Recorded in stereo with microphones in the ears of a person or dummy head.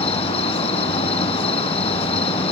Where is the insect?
30° left (ahead or behind).